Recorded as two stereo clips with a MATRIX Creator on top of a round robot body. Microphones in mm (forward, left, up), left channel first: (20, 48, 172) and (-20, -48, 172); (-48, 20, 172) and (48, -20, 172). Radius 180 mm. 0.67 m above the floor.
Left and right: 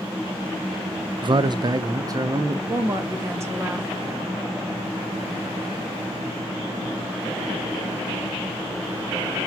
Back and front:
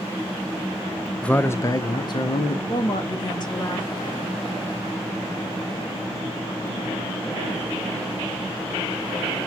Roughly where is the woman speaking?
Behind.